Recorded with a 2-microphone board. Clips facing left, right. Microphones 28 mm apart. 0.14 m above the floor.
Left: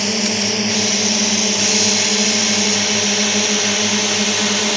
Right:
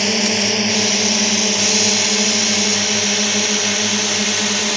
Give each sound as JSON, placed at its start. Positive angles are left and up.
{"t": 0.0, "sound": "a drone", "side_deg": -15}